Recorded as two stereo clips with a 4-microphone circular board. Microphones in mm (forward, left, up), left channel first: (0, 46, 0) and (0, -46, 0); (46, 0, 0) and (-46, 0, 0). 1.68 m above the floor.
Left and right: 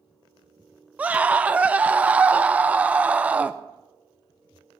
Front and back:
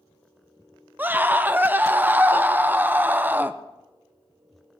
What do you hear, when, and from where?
1.0 s a scream: 145° right, 0.6 m